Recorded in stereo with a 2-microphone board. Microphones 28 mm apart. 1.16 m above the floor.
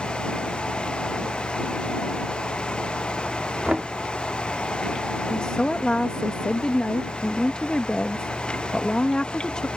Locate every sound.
3.6 s knocking: 50° right (ahead or behind)
5.3 s a woman speaking: 35° left (ahead or behind)